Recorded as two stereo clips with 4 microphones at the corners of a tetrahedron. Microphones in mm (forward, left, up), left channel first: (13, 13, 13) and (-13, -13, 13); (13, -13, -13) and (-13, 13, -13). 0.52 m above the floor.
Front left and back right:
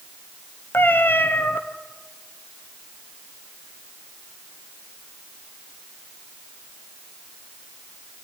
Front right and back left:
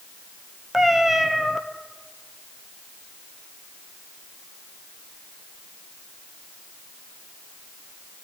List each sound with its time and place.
0.7 s a cat meowing: 50° left, 1.5 m